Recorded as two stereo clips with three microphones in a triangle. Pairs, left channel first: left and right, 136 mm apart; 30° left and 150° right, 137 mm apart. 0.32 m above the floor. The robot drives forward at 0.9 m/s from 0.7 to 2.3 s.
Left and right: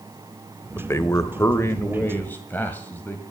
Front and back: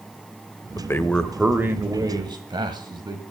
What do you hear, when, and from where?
0.8 s a man speaking: 45° left, 1.0 m; by 3.2 s 165° left, 1.4 m